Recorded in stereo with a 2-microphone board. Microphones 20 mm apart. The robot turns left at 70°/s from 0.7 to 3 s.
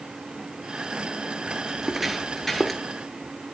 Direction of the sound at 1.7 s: 30° right (ahead or behind).